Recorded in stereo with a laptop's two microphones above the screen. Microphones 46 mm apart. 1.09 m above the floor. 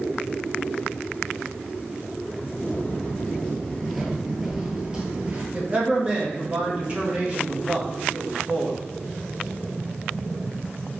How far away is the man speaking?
About 1.4 m.